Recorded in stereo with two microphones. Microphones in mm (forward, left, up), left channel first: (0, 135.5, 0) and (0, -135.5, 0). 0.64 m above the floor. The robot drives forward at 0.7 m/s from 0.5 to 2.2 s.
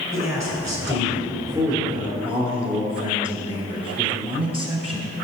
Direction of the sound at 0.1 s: 10° right (ahead or behind).